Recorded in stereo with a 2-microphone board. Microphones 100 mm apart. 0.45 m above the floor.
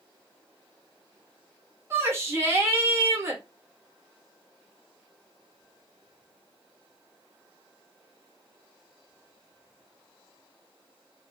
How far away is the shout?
About 1.2 m.